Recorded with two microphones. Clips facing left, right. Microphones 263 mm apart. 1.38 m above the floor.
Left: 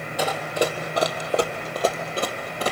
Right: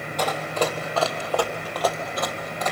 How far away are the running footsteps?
About 2 m.